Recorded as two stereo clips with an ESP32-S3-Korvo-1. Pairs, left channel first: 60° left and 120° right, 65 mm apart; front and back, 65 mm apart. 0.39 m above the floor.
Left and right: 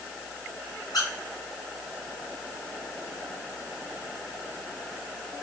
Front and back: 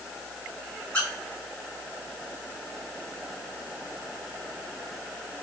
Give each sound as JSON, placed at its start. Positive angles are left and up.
{"t": 0.9, "sound": "a squeak", "azimuth_deg": 70, "distance_m": 1.7}